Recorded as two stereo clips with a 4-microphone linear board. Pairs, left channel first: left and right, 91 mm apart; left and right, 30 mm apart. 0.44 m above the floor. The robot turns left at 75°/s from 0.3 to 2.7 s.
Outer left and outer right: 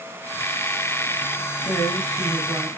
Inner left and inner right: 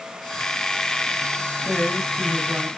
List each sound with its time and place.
1.6 s a woman speaking: 40° left, 4 m; by 2.7 s 35° right, 4 m